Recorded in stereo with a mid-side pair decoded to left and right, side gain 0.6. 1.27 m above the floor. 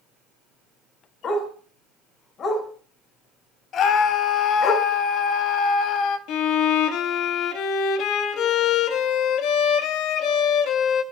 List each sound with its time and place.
1.2 s a dog barking: 45° left, 5 m
3.7 s a scream: 50° left, 2.5 m
6.3 s a violin: 65° left, 1.3 m